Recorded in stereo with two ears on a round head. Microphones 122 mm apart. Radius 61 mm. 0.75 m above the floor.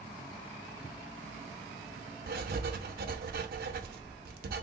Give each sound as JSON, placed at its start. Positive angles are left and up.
{"t": 2.3, "sound": "writing", "side_deg": -75, "distance_m": 0.6}